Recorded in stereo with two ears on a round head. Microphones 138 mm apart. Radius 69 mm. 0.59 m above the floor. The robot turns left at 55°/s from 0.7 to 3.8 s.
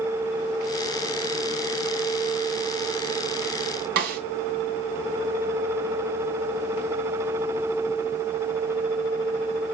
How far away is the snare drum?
About 2.5 m.